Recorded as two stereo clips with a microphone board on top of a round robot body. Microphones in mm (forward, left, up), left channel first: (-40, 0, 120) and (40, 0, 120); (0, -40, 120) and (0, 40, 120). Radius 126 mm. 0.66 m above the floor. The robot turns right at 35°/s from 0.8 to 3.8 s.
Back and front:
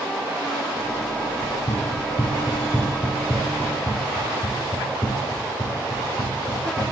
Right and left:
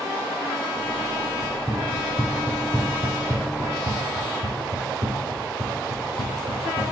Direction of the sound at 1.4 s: 170° left.